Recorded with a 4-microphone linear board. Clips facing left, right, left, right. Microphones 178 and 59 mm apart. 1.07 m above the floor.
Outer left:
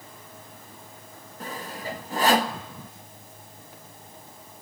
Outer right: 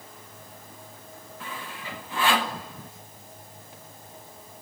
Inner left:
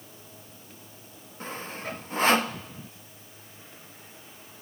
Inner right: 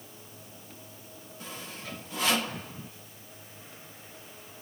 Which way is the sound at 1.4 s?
40° left (ahead or behind).